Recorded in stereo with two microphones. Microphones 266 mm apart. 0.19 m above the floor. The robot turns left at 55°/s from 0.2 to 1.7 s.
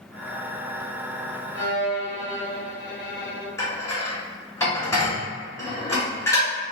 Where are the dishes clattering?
10° left (ahead or behind), 1.2 m.